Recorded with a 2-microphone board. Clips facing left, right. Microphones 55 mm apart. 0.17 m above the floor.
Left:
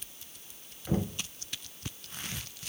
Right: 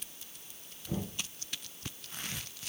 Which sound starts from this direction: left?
Knocking, at 0.9 s.